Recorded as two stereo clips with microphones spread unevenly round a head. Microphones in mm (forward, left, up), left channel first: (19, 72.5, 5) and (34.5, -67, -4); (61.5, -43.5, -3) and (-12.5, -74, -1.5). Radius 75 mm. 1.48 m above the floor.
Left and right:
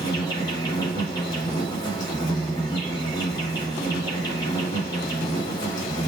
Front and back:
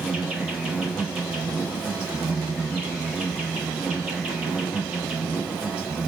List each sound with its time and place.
0.0 s an insect: 125° left, 1.6 m